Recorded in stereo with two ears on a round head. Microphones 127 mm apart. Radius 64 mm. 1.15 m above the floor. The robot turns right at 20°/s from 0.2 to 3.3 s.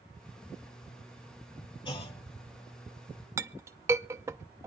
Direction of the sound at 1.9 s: 30° left (ahead or behind).